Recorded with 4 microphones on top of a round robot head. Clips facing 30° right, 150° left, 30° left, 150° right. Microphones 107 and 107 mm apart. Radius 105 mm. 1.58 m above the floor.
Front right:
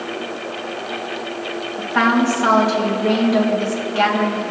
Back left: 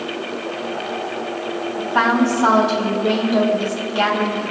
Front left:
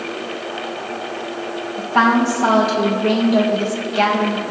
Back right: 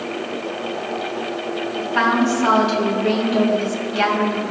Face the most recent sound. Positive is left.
turn(degrees=80)